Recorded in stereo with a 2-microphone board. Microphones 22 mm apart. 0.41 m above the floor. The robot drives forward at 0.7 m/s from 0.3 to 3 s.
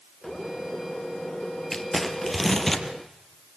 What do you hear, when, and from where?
1.7 s crumpling: 10° left (ahead or behind), 1.8 m